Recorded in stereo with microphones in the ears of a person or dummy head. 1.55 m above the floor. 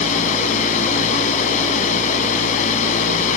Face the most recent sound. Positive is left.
turn(degrees=45)  # may be behind; listen again after turning